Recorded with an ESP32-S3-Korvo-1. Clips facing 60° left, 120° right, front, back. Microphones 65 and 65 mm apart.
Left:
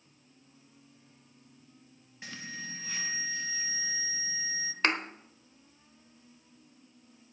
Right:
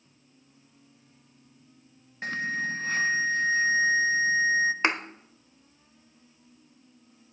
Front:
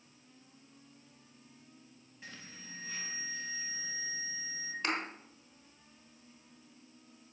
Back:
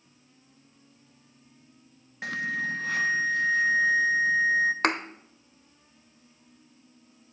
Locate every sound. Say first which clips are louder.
2.2 s an alarm: right 13 dB, back 21 dB; 165° right, 0.7 m
4.8 s a thud: right 3 dB, back 9 dB; 170° left, 1.1 m